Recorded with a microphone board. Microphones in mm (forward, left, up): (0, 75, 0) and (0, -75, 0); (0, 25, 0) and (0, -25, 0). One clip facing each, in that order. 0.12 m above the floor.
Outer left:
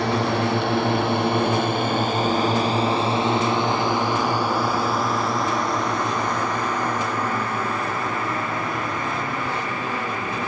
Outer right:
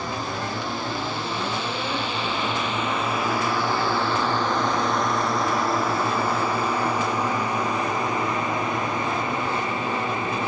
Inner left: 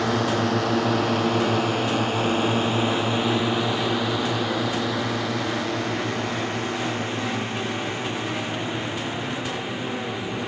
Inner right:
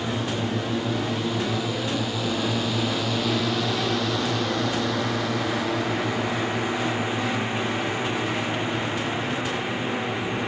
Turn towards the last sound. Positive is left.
turn(degrees=-25)  # may be behind; listen again after turning